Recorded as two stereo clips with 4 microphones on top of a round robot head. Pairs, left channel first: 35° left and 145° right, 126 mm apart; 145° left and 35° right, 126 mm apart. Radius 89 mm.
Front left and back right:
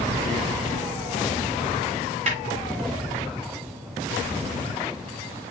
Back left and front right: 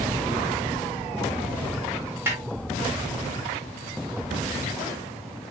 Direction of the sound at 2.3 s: 110° right.